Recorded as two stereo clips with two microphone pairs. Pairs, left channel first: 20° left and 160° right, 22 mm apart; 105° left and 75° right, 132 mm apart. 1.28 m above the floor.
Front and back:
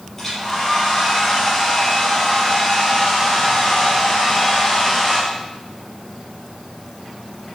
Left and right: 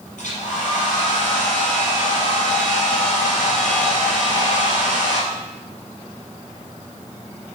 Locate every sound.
0.2 s a hair dryer: 95° left, 5.5 m